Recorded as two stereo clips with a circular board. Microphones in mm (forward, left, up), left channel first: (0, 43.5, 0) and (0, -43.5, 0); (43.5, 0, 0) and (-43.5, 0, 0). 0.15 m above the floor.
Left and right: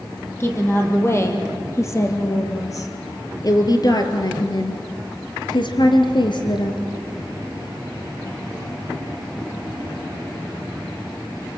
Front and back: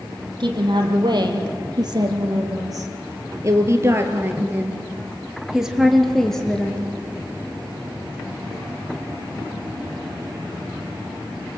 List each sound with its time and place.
0.4 s a woman speaking: 150° left, 4.5 m; by 6.9 s 75° left, 2.5 m